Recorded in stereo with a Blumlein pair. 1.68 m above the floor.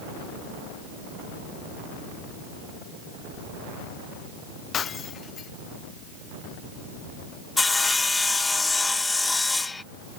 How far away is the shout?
No shout in this recording.